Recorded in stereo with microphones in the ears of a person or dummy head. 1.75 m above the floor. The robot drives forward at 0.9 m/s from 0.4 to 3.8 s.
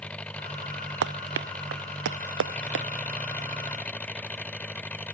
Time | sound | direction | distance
0.0 | an engine running | 5° left (ahead or behind) | ?
1.0 | running footsteps | 65° right (ahead or behind) | ?